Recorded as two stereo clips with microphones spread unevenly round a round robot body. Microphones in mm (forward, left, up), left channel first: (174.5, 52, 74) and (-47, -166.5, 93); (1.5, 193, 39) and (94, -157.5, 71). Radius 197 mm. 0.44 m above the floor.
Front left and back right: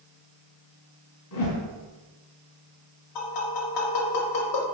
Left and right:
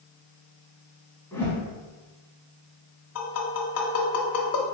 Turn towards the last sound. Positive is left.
turn(degrees=55)